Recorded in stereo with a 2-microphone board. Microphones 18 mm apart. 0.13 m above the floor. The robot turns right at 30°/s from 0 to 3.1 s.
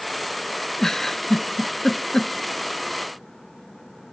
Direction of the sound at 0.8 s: 25° left (ahead or behind).